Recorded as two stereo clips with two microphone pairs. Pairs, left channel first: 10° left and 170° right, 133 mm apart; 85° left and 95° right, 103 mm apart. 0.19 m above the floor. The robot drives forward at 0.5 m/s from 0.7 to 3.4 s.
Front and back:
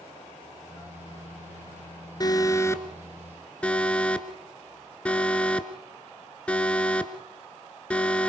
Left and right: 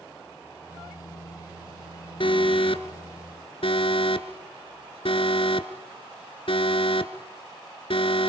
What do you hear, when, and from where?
2.2 s an alarm: 65° left, 1.7 m; by 8.3 s 90° left, 1.6 m